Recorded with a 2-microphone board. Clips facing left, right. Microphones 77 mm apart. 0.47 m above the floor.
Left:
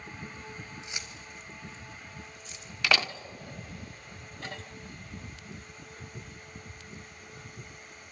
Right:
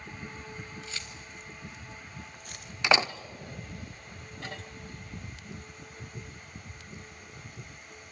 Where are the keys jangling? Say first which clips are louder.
Even; 20° left (ahead or behind), 2 m; by 2.7 s 60° right (ahead or behind), 1.8 m.